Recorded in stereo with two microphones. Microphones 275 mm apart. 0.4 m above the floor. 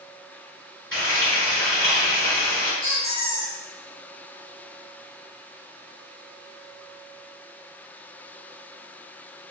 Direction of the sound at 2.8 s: 80° left.